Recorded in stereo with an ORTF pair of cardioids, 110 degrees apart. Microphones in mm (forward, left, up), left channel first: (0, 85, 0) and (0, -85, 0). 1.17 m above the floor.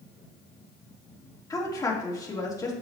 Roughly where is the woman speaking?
Ahead.